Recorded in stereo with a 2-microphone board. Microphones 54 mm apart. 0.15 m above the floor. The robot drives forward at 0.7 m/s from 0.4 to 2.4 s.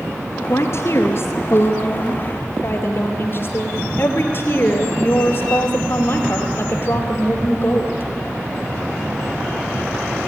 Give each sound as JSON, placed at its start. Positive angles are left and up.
{"t": 0.5, "sound": "a woman speaking", "side_deg": 60, "distance_m": 2.0}